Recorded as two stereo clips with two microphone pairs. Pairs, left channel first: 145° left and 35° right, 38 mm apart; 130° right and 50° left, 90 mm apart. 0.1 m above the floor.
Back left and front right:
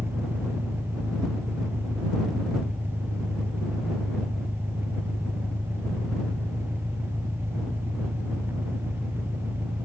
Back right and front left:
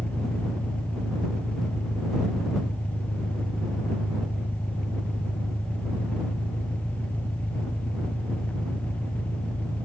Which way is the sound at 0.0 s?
55° right.